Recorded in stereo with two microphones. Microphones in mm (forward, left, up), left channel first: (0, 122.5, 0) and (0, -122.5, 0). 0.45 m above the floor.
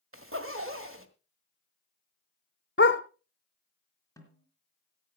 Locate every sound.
0.1 s a zipper: 60° right (ahead or behind), 1.4 m
2.8 s a dog barking: 50° left (ahead or behind), 1.0 m
4.2 s a snare drum: 10° left (ahead or behind), 3 m